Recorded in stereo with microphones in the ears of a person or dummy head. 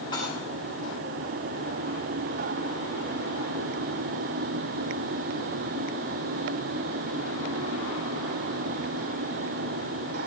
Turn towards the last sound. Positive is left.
turn(degrees=25)  # may be behind; listen again after turning